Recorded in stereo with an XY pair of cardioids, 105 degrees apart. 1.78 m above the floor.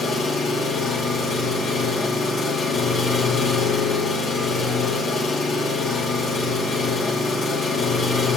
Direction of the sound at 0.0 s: 65° left.